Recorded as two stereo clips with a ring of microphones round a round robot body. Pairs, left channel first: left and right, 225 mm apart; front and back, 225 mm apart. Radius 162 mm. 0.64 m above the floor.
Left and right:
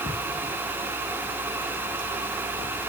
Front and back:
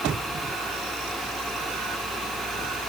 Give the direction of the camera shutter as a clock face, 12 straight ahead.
No camera shutter in this recording.